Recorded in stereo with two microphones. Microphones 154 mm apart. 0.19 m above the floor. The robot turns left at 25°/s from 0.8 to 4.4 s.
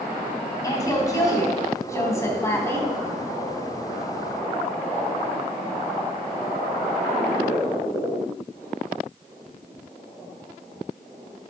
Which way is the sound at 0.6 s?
25° left (ahead or behind).